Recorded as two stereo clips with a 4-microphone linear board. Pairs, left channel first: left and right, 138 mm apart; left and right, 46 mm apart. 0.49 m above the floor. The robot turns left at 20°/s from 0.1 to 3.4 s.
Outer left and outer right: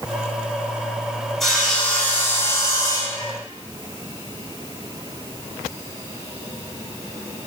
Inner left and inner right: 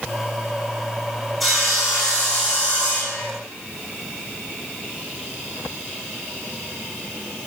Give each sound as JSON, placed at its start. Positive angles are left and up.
{"t": 1.4, "sound": "sawing", "azimuth_deg": 180, "distance_m": 2.0}